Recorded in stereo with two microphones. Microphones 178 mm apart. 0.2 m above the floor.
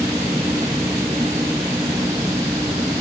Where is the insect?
15° right (ahead or behind).